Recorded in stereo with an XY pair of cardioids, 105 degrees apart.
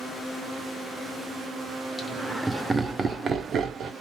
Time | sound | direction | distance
2.0 | laughter | 15° left | 0.7 m